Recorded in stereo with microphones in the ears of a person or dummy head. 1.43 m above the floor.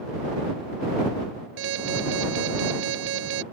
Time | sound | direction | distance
1.6 | an alarm | 60° right (ahead or behind) | ?